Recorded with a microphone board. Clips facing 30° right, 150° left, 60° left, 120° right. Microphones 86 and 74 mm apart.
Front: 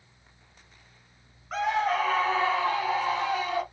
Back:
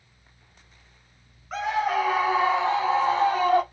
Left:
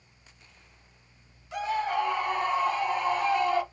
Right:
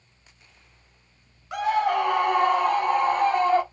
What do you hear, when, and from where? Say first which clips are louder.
1.5 s a scream: back 1 dB, right 6 dB; 120° right, 1.7 m; by 3.6 s 165° right, 1.5 m